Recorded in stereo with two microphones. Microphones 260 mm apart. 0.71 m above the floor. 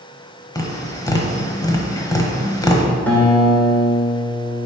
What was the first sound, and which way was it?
Tapping, 15° left (ahead or behind).